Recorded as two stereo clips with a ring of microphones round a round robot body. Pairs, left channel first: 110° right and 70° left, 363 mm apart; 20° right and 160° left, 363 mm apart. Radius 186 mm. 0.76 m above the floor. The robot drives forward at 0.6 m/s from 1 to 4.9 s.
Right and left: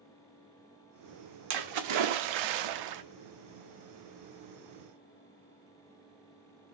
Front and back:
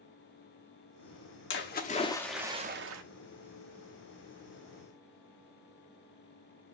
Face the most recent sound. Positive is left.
turn(degrees=155)